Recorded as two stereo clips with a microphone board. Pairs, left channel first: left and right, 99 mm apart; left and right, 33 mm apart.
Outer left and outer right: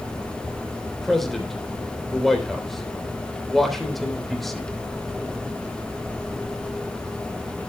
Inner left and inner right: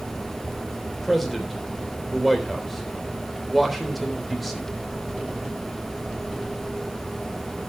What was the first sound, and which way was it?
A man speaking, centre (ahead or behind).